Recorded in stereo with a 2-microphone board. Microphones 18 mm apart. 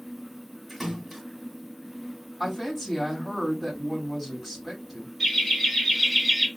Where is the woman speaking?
5° left (ahead or behind), 2.5 m.